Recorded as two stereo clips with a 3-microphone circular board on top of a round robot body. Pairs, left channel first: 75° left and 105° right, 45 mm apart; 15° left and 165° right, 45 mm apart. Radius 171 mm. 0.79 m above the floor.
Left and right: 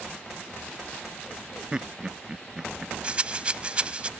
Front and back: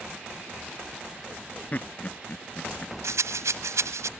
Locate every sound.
1.7 s laughter: 35° right
3.0 s a rattle: 170° right